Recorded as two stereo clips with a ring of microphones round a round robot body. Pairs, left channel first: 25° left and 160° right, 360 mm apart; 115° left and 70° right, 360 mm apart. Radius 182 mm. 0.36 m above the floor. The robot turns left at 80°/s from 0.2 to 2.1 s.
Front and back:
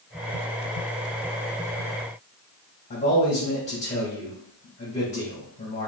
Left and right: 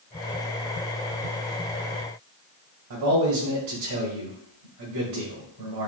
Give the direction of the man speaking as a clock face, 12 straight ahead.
2 o'clock.